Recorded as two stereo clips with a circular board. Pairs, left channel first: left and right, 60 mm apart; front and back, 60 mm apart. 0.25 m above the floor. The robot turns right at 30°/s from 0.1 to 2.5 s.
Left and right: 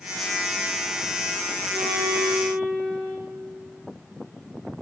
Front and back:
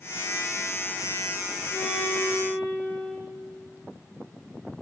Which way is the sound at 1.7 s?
85° right.